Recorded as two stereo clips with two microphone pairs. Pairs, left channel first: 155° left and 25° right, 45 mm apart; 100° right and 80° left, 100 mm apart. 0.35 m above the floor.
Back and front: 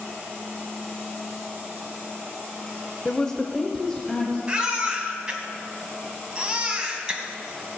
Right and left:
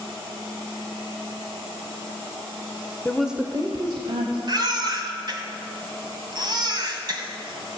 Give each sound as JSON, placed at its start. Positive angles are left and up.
{"t": 3.0, "sound": "a woman speaking", "azimuth_deg": -150, "distance_m": 0.9}
{"t": 4.5, "sound": "a baby crying", "azimuth_deg": 40, "distance_m": 1.7}